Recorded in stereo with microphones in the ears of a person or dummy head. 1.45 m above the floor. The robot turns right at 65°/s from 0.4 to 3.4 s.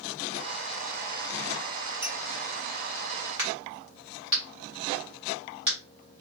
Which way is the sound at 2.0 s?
10° right (ahead or behind).